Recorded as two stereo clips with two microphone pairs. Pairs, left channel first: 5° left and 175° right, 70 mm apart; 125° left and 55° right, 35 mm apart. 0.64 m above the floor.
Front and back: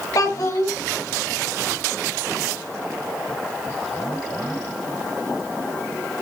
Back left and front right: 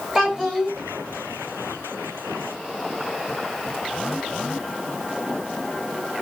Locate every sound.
0.1 s a child speaking: 25° left, 2 m